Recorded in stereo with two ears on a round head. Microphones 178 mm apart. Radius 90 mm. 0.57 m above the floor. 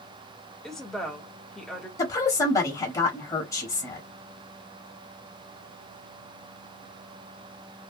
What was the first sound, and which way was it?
A woman speaking, centre (ahead or behind).